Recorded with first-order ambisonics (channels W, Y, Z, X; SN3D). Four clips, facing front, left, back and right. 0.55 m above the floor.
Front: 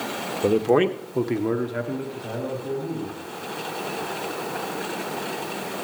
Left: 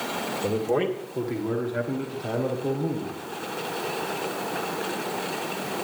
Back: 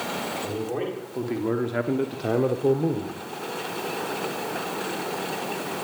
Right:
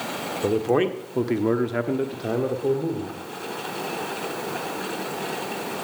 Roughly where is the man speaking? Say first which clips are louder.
Right 4 dB, front 10 dB; ahead.